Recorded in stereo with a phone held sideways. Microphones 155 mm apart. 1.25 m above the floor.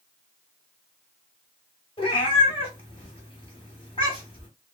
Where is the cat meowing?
35° left (ahead or behind), 2 m.